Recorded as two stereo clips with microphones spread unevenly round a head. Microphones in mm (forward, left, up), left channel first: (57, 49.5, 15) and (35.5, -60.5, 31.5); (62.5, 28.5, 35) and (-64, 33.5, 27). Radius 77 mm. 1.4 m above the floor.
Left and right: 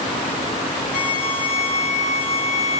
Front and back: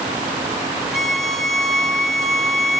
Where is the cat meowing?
I don't hear a cat meowing.